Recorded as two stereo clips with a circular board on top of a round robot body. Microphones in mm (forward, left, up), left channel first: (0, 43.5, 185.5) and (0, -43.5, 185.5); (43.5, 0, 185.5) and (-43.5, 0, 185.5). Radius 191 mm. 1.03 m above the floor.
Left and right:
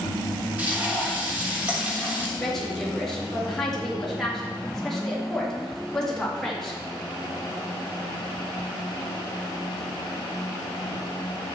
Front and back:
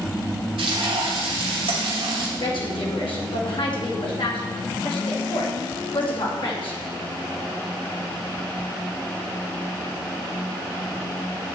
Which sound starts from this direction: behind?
Frying, at 0.6 s.